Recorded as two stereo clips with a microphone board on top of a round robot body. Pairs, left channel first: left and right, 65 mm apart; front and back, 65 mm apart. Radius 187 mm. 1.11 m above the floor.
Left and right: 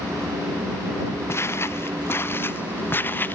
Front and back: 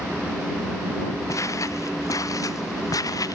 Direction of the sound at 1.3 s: 40° left.